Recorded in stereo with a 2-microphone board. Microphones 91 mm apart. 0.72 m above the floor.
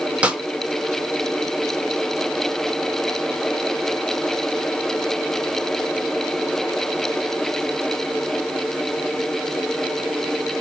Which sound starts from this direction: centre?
A snare drum, at 0.2 s.